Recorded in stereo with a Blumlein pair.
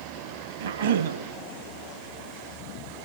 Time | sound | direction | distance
0.6 | a cough | 65° right | 2 m